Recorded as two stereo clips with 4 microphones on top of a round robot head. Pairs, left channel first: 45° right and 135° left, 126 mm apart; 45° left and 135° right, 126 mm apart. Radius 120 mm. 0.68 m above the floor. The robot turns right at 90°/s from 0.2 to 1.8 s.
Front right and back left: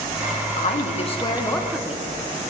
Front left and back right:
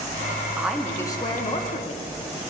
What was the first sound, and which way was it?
A woman speaking, 60° right.